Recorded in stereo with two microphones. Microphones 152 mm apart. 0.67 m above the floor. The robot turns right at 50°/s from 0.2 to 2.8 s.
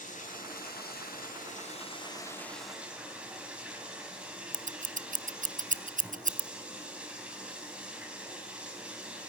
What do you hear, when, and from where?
0.0 s running water: 55° left, 3 m; by 9.3 s 175° right, 3 m
4.5 s scissors: 60° right (ahead or behind), 0.5 m